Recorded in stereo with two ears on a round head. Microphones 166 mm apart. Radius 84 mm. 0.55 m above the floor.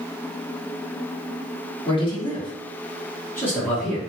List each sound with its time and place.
1.9 s a man speaking: 30° left (ahead or behind), 1.2 m; by 4.0 s 5° left (ahead or behind), 1.0 m